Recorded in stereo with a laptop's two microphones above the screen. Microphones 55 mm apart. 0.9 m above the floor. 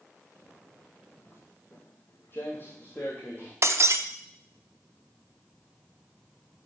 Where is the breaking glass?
55° right (ahead or behind), 0.6 m.